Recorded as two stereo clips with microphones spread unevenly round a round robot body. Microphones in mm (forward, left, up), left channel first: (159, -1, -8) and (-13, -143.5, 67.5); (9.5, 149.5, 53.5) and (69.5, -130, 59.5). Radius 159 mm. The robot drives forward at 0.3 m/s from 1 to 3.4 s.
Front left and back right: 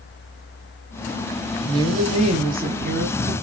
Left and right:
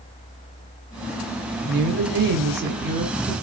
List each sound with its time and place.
1.6 s a woman speaking: 50° right, 0.7 m; by 3.3 s 120° right, 0.7 m